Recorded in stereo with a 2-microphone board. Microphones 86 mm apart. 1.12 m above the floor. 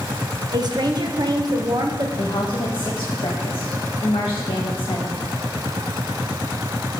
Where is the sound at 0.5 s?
50° right (ahead or behind), 1.0 m.